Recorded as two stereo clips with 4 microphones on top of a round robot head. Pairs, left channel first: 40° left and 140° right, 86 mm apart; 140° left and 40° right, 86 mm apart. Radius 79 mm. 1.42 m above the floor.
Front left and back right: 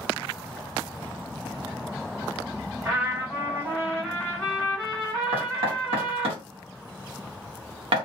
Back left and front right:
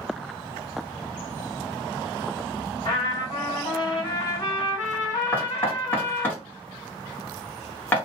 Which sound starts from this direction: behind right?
Knocking, at 5.3 s.